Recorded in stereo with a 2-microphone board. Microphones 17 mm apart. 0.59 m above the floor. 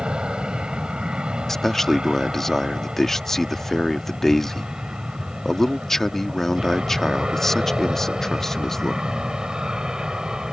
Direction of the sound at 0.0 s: 60° right (ahead or behind).